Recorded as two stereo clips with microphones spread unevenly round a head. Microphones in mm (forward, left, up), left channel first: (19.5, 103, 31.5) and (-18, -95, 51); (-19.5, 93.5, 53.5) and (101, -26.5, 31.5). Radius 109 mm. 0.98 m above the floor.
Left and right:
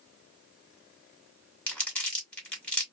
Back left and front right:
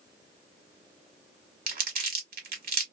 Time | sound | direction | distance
1.7 | crumpling | 10° right | 1.5 m